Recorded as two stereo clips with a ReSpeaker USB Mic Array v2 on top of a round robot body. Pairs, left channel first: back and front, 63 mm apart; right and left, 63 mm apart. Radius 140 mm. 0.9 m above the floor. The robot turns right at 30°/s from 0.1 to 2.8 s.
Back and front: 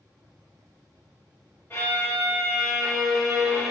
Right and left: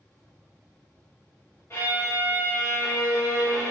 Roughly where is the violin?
Behind right.